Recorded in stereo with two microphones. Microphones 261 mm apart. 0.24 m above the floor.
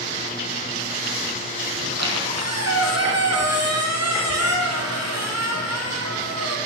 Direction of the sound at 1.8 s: 80° right.